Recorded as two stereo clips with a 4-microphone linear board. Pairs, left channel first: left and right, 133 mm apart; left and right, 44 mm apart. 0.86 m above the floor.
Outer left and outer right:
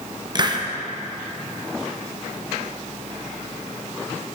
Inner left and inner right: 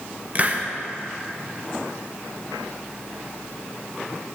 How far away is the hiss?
About 0.6 m.